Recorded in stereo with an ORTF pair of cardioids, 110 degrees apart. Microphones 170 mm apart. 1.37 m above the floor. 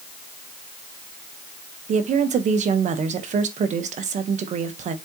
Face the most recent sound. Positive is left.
turn(degrees=-50)